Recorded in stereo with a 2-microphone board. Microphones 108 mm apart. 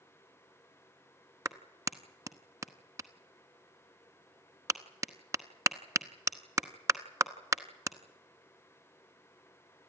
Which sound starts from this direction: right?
A clap, at 1.4 s.